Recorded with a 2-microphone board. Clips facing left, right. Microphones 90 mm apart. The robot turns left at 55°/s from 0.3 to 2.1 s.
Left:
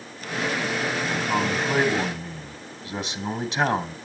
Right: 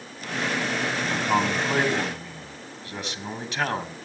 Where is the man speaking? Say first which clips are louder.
Right 3 dB; 150° right, 2.5 m; by 4.0 s 150° left, 2.5 m.